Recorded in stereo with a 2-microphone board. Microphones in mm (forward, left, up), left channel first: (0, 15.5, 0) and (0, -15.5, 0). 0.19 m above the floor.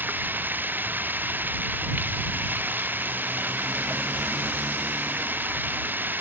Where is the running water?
75° right (ahead or behind).